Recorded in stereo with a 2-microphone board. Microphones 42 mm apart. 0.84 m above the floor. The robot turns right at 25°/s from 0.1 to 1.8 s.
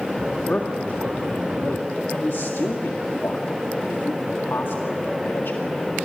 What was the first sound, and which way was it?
A man speaking, 40° left (ahead or behind).